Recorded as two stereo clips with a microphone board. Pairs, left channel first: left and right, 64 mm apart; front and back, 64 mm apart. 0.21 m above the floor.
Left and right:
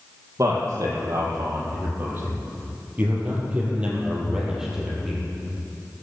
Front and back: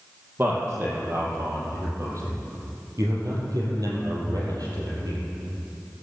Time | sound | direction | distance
0.4 | a man speaking | 125° right | 5.5 m